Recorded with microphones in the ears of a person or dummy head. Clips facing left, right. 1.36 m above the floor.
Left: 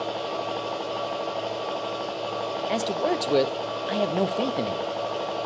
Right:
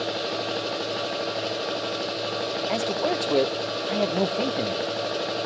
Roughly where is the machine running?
Centre.